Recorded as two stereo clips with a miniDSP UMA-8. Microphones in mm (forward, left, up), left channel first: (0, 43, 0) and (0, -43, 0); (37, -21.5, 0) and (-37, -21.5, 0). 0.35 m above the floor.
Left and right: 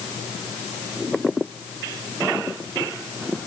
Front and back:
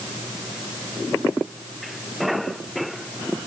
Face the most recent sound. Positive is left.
No sound to turn to.